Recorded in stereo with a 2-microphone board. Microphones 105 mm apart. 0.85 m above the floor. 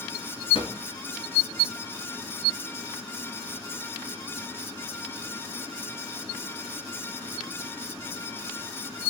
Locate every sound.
0.5 s a drawer: 60° left (ahead or behind), 2.5 m